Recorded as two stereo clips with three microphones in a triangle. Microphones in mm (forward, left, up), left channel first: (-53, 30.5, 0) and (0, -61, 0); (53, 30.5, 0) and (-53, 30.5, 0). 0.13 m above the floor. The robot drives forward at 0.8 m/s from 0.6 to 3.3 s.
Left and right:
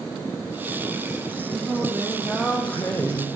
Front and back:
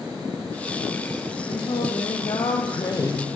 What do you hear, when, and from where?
1.5 s singing: 20° left, 1.8 m; by 3.3 s 70° left, 0.7 m